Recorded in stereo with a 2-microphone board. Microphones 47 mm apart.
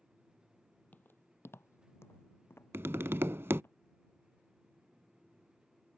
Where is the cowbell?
I don't hear a cowbell.